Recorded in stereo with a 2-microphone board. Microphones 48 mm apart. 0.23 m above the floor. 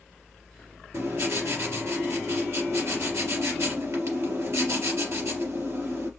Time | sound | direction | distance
0.9 | writing | 75° right (ahead or behind) | 3.5 m